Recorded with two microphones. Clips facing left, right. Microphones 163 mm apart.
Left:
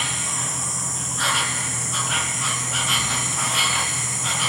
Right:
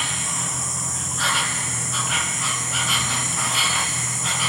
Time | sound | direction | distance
0.0 | an insect | centre (ahead or behind) | 0.7 m